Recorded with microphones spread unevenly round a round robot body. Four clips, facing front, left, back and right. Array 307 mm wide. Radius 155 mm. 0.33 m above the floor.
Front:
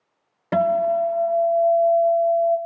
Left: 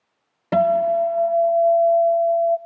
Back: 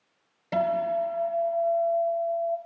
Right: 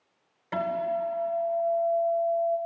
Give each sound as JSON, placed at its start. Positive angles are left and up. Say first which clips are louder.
{"t": 0.5, "sound": "a guitar", "louder": "left 11 dB, front 6 dB", "azimuth_deg": 55, "distance_m": 0.7}